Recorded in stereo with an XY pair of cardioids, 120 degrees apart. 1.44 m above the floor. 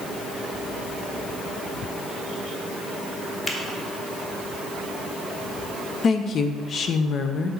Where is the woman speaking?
45° left, 0.9 m.